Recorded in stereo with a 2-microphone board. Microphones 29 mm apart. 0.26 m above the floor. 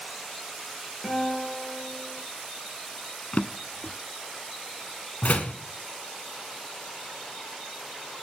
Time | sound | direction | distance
1.0 | a guitar | 15° left (ahead or behind) | 5 m
3.3 | a drawer | 65° left (ahead or behind) | 0.5 m
5.2 | a door slam | 65° left (ahead or behind) | 1.6 m